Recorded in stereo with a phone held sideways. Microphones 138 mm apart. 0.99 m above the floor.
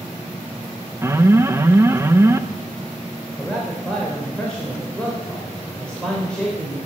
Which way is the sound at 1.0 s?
20° right (ahead or behind).